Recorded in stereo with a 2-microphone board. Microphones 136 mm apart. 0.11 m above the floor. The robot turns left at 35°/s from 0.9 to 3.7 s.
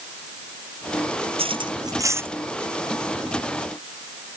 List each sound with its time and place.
1.4 s cutlery clinking: 45° right (ahead or behind); by 2.3 s 15° right (ahead or behind)